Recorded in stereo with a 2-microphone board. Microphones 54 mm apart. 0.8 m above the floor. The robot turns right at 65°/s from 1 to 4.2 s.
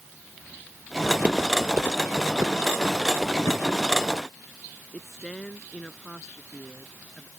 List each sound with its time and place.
1.0 s footsteps: 20° right (ahead or behind); by 3.3 s 5° right (ahead or behind)
3.4 s a drawer: 85° left; by 3.7 s 65° left (ahead or behind)
4.9 s a woman speaking: 10° left (ahead or behind)